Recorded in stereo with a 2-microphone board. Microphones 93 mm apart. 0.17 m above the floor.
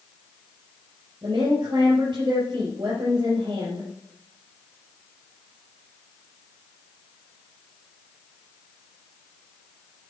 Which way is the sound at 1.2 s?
50° right (ahead or behind).